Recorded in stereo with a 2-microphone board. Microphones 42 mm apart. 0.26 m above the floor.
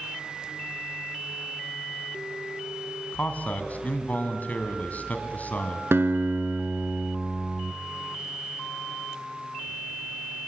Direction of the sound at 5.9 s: 70° right (ahead or behind).